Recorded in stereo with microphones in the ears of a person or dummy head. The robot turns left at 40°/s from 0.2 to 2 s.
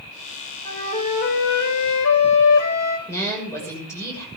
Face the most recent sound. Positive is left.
turn(degrees=10)  # may be behind; listen again after turning